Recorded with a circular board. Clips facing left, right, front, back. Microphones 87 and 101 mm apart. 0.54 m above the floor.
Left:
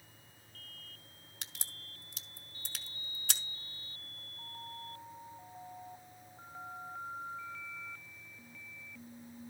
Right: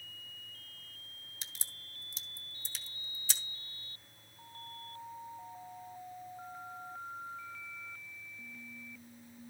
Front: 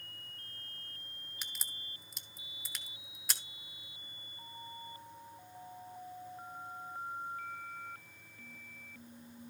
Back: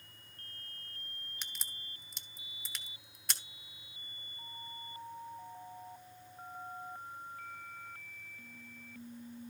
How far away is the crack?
About 0.9 m.